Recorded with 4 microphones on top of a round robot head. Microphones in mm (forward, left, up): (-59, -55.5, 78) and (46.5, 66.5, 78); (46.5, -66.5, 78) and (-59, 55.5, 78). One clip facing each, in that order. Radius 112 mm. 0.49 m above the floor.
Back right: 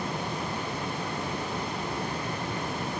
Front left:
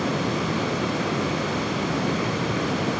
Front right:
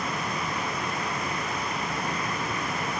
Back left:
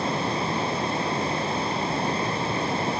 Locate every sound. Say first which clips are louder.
0.0 s running water: front left 8 dB, back left 5 dB; 70° left